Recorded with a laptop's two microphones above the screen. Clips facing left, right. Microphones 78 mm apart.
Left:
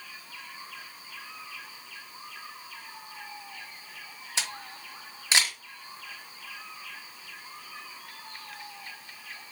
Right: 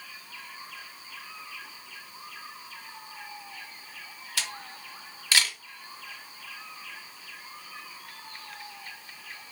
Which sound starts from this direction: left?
A camera shutter, at 4.4 s.